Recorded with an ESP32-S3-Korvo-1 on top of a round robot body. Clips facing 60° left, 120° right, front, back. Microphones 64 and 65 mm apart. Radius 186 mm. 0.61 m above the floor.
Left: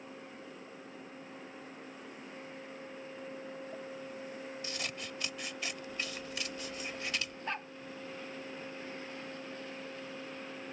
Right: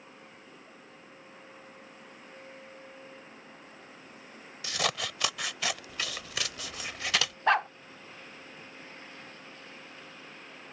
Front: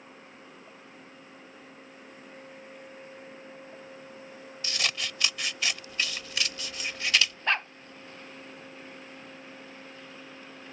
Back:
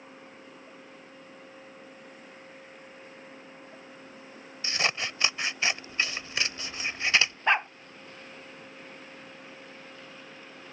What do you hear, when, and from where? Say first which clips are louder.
4.6 s scissors: right 14 dB, back 3 dB; 115° right
7.5 s a dog barking: right 16 dB, back 5 dB; 105° right